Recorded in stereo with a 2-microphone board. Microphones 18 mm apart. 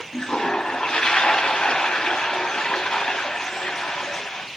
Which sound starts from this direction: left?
A toilet flushing, at 0.1 s.